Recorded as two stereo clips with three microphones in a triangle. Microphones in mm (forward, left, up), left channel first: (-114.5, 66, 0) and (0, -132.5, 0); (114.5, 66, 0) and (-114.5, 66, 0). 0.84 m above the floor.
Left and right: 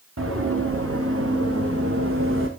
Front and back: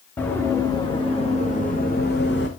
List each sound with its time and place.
0.2 s running footsteps: 80° right, 4.5 m; by 2.5 s 35° right, 3.5 m